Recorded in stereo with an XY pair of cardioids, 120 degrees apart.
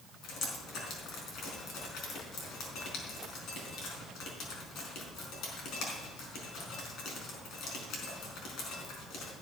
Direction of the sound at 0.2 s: 65° left.